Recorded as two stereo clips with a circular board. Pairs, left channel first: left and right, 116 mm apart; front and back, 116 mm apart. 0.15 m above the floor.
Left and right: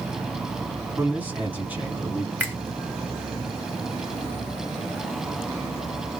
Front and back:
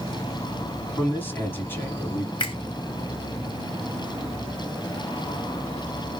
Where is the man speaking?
35° right, 1.7 m.